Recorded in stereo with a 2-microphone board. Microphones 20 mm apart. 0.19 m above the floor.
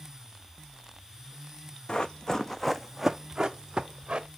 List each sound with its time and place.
1.9 s running footsteps: 50° left (ahead or behind), 0.9 m; by 4.3 s 40° right (ahead or behind), 1.3 m